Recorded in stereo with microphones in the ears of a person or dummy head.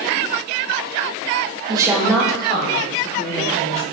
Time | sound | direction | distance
1.7 | a woman speaking | 30° right (ahead or behind) | 0.7 m